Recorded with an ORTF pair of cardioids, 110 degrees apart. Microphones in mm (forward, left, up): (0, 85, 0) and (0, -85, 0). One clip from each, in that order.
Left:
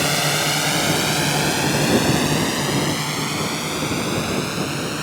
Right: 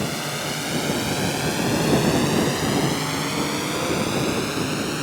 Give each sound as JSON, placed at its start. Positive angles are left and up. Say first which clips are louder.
{"t": 0.0, "sound": "a drone", "louder": "left 7 dB", "azimuth_deg": 55}